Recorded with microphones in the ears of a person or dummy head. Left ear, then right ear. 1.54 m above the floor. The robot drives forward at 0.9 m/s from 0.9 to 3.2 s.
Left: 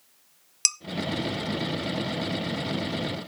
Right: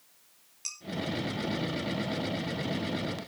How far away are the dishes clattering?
About 0.8 m.